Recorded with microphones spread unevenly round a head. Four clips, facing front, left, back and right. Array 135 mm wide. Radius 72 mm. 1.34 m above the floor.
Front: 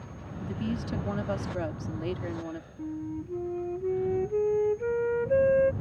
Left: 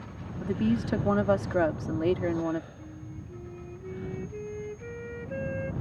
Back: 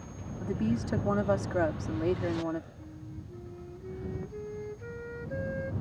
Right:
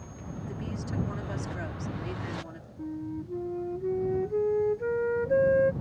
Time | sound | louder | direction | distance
0.4 | a woman speaking | left 12 dB, back 2 dB | 115° left | ?
2.8 | a flute | right 9 dB, front 12 dB | 40° right | ?